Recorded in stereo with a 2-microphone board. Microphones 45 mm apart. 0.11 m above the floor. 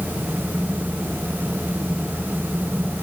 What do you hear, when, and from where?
Only background noise.